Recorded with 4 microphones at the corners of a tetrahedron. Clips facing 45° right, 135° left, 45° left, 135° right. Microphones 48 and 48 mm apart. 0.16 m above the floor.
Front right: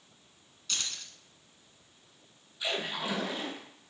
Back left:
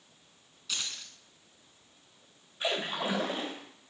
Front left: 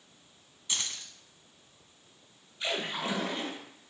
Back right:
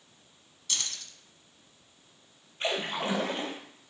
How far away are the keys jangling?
About 0.8 m.